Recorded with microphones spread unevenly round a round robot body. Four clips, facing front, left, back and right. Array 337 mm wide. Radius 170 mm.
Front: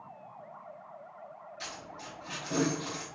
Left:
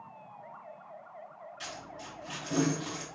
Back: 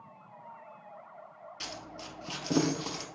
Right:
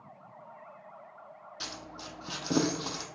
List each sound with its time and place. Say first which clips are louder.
1.6 s a dropped coin: right 1 dB, back 2 dB; 130° right, 0.5 m